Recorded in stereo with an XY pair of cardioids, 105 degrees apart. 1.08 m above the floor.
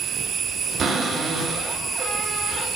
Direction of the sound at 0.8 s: 35° right.